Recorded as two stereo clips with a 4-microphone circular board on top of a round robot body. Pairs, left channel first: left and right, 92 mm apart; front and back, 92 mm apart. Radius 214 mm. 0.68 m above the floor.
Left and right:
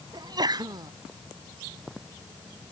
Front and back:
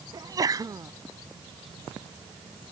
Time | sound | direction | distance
0.1 | a sneeze | 135° right | ?